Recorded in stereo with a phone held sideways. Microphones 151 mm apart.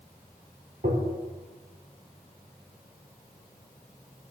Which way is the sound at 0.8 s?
65° right (ahead or behind).